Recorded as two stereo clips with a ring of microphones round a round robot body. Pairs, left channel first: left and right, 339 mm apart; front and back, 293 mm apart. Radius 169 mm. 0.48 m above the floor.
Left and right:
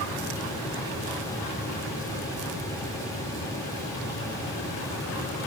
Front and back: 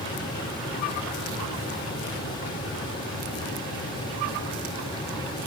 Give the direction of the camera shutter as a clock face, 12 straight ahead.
I don't hear a camera shutter.